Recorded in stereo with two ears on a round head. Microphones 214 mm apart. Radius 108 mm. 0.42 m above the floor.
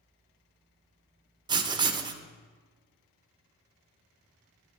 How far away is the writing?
About 0.7 m.